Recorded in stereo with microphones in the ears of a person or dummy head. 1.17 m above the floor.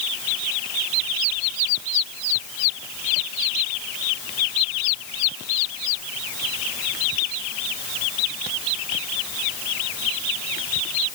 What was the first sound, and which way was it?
Only background noise.